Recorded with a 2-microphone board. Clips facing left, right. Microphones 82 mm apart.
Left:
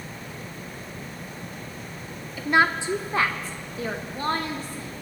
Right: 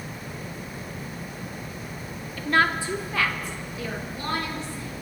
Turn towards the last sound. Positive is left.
turn(degrees=45)  # may be behind; listen again after turning